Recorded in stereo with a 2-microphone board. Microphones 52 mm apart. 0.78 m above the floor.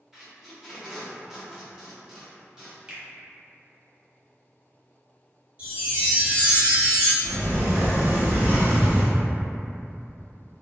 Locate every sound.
0.1 s tape being pulled: 10° right (ahead or behind), 0.8 m
2.9 s a finger snap: 20° right (ahead or behind), 0.7 m
5.6 s a chime: 30° right (ahead or behind), 1.6 m
7.2 s a sliding door: 45° right (ahead or behind), 1.3 m